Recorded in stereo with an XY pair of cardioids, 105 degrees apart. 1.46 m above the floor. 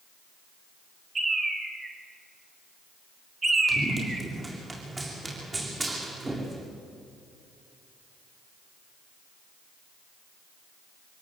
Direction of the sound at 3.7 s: 25° right.